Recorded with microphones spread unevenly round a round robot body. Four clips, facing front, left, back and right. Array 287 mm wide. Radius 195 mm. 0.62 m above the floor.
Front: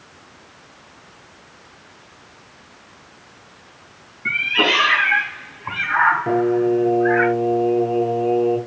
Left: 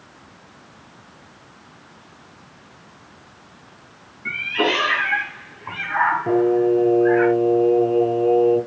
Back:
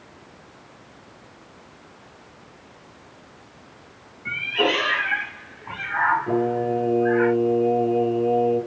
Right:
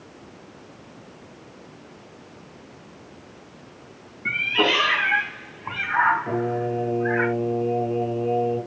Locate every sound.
4.2 s a cat meowing: 50° right, 3 m; by 7.3 s 5° right, 5 m
6.3 s singing: 40° left, 4.5 m